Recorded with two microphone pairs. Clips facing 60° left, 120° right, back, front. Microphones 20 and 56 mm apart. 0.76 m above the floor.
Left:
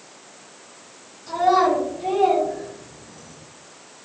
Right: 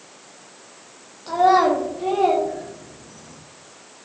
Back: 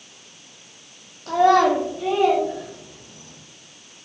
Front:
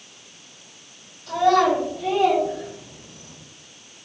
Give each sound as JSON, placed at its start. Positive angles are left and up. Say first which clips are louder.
{"t": 1.3, "sound": "a child speaking", "louder": "right 2 dB, back 2 dB", "azimuth_deg": -160, "distance_m": 0.6}